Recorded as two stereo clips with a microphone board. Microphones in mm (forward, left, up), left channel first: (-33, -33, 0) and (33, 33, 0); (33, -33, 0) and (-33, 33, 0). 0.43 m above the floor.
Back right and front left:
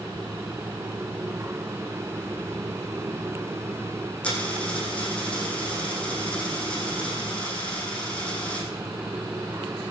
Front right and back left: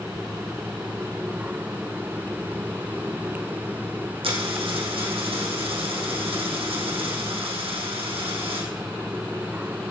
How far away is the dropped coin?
About 4.5 m.